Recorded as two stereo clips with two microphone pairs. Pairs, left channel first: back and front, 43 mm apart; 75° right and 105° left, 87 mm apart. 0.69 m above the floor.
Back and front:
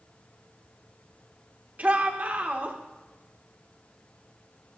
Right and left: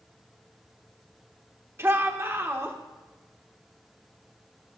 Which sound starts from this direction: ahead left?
A shout, at 1.8 s.